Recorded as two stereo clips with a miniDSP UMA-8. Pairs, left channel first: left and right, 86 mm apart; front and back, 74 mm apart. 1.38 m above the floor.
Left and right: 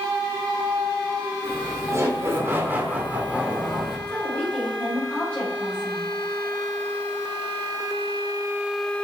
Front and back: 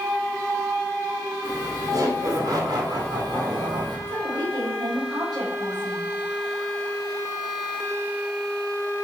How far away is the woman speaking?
About 6.5 m.